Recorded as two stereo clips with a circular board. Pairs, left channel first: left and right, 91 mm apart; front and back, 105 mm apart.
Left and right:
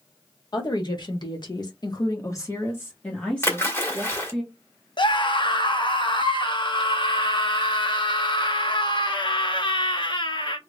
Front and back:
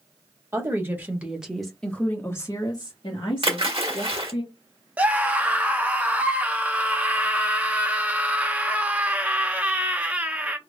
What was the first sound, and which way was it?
A woman speaking, 120° left.